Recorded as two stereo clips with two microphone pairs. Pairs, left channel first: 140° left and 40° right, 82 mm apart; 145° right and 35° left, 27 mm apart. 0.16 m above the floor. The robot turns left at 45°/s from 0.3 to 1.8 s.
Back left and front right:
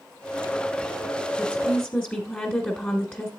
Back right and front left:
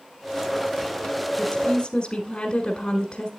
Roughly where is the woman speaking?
Behind right.